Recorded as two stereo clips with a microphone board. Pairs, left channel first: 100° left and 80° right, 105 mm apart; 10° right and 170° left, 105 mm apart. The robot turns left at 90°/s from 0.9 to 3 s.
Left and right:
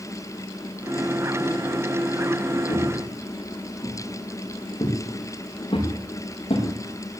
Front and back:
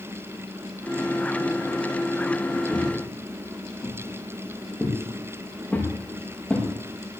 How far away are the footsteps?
About 8.5 m.